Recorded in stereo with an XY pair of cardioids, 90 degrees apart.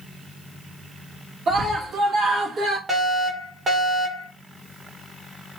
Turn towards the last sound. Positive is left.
turn(degrees=-40)